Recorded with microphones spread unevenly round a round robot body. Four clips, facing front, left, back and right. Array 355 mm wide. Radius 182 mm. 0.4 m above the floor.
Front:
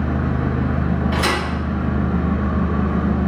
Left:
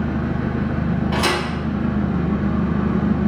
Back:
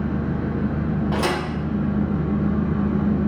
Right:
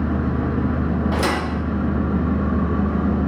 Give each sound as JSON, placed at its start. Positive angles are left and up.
{"t": 0.0, "sound": "an engine running", "azimuth_deg": -25, "distance_m": 0.8}
{"t": 1.1, "sound": "a thud", "azimuth_deg": -130, "distance_m": 0.7}